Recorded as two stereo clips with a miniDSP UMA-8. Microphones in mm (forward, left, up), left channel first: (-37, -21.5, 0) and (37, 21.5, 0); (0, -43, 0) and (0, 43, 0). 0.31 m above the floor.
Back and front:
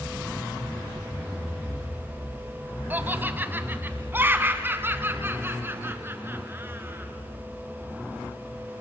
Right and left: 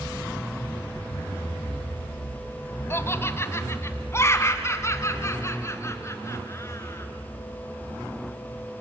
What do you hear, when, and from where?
2.9 s laughter: 35° right, 1.5 m